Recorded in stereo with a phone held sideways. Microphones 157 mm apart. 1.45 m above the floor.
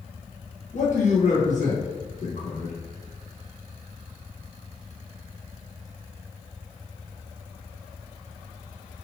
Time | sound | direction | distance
0.7 | a man speaking | 55° left (ahead or behind) | 1.5 m